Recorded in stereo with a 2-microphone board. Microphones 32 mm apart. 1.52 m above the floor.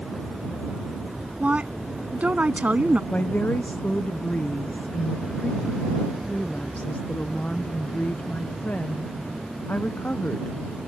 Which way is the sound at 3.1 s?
70° left (ahead or behind).